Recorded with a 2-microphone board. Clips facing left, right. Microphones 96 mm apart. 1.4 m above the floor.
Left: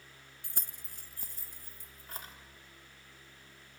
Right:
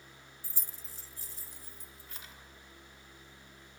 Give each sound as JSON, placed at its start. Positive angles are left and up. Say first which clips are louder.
{"t": 0.4, "sound": "keys jangling", "louder": "left 2 dB", "side_deg": 60, "distance_m": 0.7}